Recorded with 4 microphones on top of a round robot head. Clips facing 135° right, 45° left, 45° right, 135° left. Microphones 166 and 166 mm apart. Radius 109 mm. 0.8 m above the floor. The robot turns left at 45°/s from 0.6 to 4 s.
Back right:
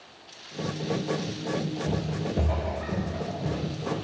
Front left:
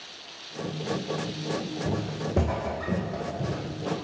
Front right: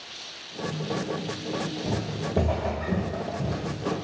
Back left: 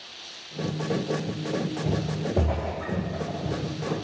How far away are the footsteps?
About 2.5 m.